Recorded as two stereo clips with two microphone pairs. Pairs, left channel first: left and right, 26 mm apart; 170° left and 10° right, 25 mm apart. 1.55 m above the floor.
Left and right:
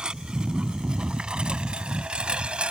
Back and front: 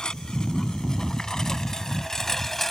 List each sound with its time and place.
0.0 s a lawn mower: 135° right; by 2.7 s 115° right